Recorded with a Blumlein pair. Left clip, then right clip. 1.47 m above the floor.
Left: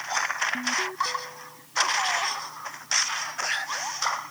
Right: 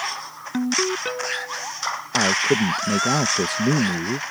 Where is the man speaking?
45° right.